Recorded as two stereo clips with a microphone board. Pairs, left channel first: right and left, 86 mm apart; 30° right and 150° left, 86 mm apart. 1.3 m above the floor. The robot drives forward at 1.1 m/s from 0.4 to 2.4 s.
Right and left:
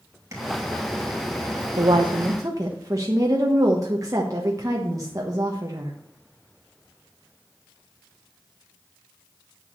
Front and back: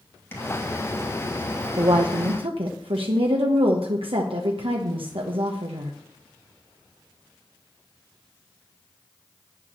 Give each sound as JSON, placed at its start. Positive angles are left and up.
{"t": 0.3, "sound": "tapping", "azimuth_deg": 35, "distance_m": 2.5}
{"t": 1.8, "sound": "a woman speaking", "azimuth_deg": 110, "distance_m": 0.8}